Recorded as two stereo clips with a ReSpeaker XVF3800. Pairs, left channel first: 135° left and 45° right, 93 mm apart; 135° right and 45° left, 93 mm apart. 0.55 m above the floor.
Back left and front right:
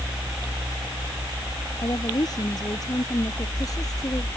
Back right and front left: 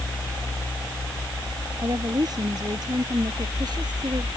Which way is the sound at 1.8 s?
90° left.